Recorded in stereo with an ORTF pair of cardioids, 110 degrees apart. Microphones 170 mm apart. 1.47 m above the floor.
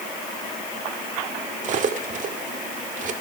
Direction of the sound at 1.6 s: 50° right.